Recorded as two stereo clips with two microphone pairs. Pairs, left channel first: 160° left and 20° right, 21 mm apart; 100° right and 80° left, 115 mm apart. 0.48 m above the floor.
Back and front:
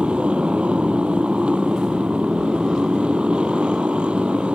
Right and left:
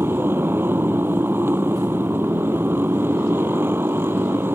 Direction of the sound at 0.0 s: 10° left.